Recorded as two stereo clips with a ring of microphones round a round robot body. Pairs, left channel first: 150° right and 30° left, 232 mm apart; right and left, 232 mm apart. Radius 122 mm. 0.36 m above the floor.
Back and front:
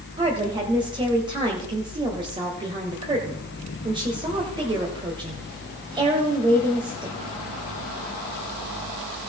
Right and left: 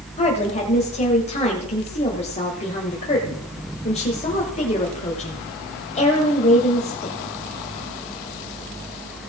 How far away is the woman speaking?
About 1.6 m.